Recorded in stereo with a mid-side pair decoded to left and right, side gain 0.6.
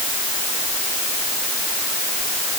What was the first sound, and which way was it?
Only background noise.